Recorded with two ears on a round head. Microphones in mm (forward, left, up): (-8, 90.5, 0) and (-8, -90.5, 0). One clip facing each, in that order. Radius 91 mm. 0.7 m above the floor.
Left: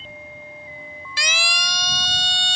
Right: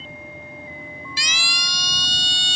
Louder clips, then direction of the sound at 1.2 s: Left 9 dB; 50° left (ahead or behind).